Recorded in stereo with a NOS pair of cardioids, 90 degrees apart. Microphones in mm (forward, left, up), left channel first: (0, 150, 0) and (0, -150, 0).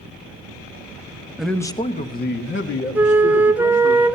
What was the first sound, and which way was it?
A man speaking, 5° right.